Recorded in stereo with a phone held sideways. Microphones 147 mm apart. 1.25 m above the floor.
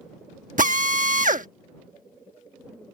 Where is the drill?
65° right (ahead or behind).